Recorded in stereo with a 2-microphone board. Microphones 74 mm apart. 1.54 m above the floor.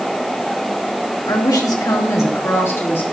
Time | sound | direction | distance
1.3 | a woman speaking | 70° left (ahead or behind) | 3 m